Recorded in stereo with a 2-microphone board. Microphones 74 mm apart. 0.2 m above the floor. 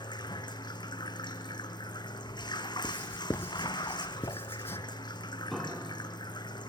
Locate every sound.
0.0 s running water: 85° left, 1.4 m
2.8 s writing: 30° left (ahead or behind), 0.6 m
5.5 s a piano: centre (ahead or behind), 2 m